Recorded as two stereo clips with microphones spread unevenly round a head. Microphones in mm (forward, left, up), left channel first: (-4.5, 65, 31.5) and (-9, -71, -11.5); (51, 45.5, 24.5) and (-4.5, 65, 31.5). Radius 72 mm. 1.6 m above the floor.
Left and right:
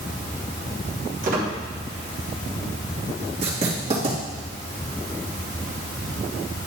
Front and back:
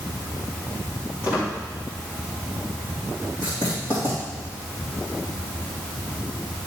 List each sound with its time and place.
1.2 s a squeak: 130° right, 3.5 m
3.4 s writing: 140° right, 3 m